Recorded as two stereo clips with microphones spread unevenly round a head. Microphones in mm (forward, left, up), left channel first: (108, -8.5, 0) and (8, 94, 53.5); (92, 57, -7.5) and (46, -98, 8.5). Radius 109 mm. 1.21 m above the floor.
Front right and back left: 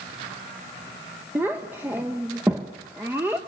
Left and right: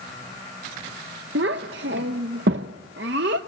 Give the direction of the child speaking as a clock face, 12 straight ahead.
5 o'clock.